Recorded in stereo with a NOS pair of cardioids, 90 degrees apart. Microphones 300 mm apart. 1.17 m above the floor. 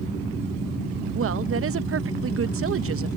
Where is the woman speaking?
45° right.